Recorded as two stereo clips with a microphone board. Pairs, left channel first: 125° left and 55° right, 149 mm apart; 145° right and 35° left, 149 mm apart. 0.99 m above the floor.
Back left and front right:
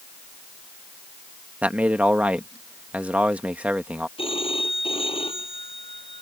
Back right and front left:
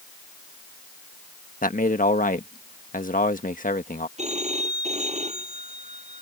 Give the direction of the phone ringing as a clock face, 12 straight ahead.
10 o'clock.